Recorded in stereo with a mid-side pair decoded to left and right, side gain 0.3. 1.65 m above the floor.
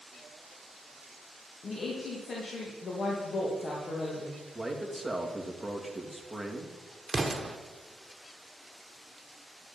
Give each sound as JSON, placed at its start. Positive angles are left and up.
{"t": 1.6, "sound": "a woman speaking", "azimuth_deg": 60, "distance_m": 2.5}
{"t": 4.5, "sound": "a man speaking", "azimuth_deg": 0, "distance_m": 3.0}
{"t": 7.1, "sound": "an explosion", "azimuth_deg": -35, "distance_m": 1.7}